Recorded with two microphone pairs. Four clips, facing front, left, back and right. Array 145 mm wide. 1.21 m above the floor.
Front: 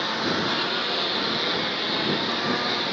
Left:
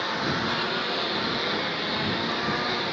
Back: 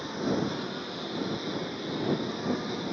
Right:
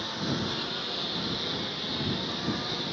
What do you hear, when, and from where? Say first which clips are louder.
0.0 s a lawn mower: left 5 dB, front 3 dB; 25° left